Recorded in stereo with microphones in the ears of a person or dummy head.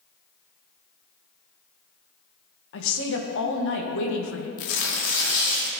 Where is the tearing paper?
70° left (ahead or behind), 1.6 m.